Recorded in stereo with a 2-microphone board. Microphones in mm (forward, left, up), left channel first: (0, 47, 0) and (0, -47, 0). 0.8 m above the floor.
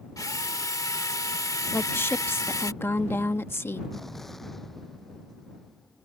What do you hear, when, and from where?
0.2 s a drill: 40° left (ahead or behind)
1.7 s a woman speaking: 25° left (ahead or behind)
3.9 s an explosion: centre (ahead or behind)